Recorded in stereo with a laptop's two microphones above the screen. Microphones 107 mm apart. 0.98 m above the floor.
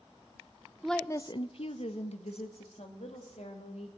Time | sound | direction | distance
0.8 | a woman speaking | 5° right (ahead or behind) | 0.5 m